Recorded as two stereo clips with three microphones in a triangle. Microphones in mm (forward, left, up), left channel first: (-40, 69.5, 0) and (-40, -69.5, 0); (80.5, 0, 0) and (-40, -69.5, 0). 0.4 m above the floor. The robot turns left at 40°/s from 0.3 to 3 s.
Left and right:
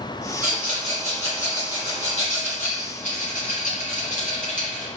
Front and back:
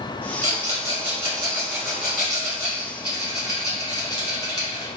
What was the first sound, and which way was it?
A rattle, 175° right.